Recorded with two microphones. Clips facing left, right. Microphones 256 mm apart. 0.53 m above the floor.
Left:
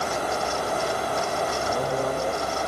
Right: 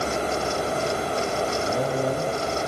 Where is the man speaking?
15° right (ahead or behind), 5 m.